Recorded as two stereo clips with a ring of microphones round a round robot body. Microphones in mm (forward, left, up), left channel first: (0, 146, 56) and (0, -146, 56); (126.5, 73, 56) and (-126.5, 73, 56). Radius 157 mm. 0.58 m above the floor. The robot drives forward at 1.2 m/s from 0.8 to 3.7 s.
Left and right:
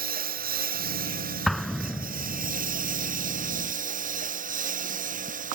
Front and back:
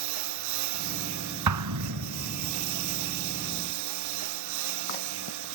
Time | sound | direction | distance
0.0 | a lawn mower | 150° right | ?
1.5 | an explosion | straight behind | ?